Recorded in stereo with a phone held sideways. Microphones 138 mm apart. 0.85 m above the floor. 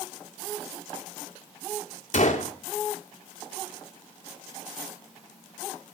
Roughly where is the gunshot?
Left.